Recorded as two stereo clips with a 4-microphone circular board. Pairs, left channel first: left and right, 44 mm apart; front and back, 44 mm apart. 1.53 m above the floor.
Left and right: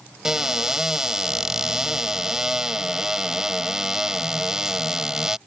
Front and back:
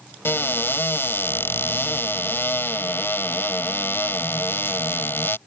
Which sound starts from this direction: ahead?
A cupboard door, at 0.2 s.